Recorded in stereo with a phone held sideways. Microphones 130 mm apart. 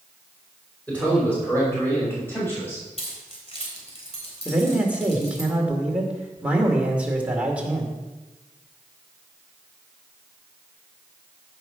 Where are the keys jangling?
50° left (ahead or behind), 3.5 m.